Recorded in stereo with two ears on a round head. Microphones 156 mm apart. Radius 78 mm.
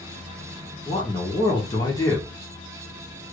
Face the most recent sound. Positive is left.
turn(degrees=20)  # may be behind; listen again after turning